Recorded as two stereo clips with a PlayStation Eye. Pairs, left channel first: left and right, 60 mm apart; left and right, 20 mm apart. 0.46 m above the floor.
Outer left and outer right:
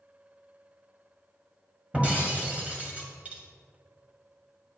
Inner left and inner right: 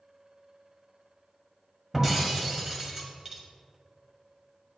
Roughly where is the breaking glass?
Right.